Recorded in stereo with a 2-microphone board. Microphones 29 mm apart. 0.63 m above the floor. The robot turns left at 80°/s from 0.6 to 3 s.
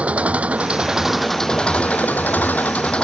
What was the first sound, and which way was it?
An engine running, 130° right.